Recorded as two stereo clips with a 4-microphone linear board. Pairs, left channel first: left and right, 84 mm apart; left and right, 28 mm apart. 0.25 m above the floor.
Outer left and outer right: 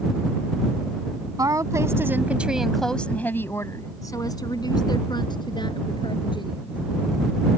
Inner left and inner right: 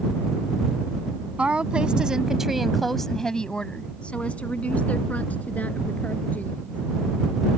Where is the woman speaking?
45° right (ahead or behind); by 6.8 s 70° left (ahead or behind).